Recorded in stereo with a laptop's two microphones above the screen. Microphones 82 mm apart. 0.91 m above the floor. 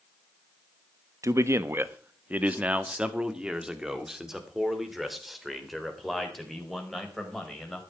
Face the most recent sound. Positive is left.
turn(degrees=5)  # may be behind; listen again after turning